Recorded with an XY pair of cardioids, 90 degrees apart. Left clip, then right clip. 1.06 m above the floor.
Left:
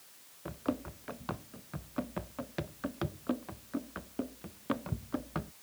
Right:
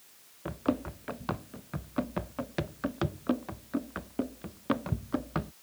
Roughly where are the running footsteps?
Ahead right.